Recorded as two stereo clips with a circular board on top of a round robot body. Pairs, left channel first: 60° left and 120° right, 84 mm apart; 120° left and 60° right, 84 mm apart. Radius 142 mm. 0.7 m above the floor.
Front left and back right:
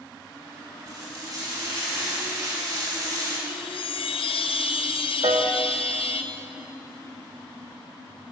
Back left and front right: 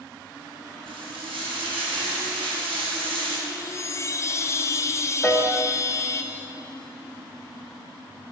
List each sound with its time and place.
0.9 s frying: 70° right, 4 m
3.5 s a chime: 65° left, 0.6 m
5.2 s a piano: 160° right, 1.7 m